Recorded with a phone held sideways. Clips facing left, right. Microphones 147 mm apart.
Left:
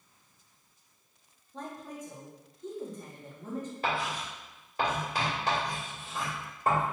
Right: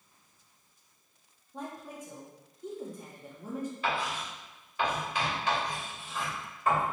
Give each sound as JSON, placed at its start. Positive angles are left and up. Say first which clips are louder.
{"t": 1.5, "sound": "a woman speaking", "louder": "even", "side_deg": -10, "distance_m": 0.8}
{"t": 3.8, "sound": "writing", "louder": "left 2 dB", "side_deg": 40, "distance_m": 1.6}